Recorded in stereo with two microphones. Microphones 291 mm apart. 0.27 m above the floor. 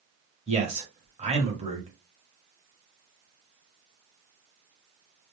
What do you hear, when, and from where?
0.5 s a man speaking: 20° right (ahead or behind), 0.9 m